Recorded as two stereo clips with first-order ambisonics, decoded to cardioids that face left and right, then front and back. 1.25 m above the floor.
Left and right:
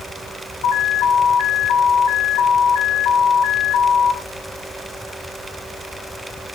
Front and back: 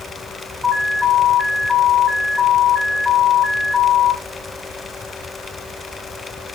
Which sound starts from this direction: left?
An alarm, at 0.6 s.